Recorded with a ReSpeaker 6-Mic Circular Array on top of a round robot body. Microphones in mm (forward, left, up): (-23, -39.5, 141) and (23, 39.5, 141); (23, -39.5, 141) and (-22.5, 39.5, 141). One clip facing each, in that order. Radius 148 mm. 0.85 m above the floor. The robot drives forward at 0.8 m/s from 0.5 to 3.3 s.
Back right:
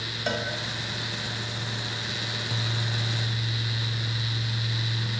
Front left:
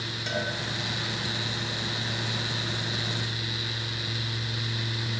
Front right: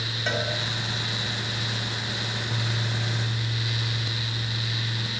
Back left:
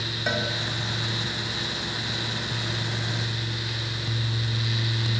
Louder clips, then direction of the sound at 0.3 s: Back right 2 dB, back left 1 dB; 160° right.